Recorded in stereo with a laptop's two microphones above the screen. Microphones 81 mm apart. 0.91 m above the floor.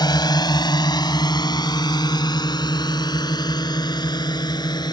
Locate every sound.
0.0 s a drone: 60° left (ahead or behind)